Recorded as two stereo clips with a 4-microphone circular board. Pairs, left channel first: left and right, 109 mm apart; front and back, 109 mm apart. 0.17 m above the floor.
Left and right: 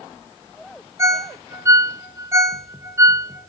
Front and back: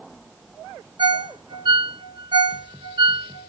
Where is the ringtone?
150° right, 0.9 m.